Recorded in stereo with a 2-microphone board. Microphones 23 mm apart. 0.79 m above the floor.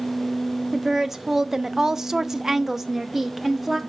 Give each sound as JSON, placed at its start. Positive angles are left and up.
{"t": 0.7, "sound": "a woman speaking", "side_deg": -15, "distance_m": 1.0}